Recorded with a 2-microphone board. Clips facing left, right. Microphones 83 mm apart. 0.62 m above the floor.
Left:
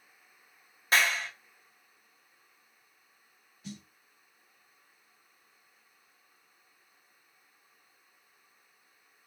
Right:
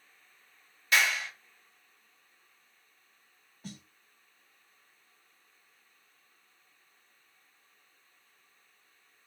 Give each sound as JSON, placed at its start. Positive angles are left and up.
{"t": 0.9, "sound": "a clap", "side_deg": 35, "distance_m": 1.3}
{"t": 3.6, "sound": "a snare drum", "side_deg": -40, "distance_m": 0.9}